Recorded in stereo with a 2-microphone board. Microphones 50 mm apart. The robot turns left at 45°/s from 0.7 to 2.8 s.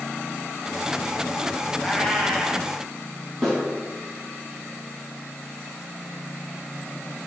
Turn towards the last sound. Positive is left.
turn(degrees=5)  # may be behind; listen again after turning